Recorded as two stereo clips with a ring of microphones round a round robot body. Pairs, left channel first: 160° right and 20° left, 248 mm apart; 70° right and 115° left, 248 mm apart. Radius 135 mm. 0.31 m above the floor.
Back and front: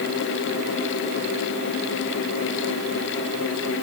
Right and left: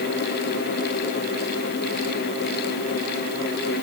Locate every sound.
Only background noise.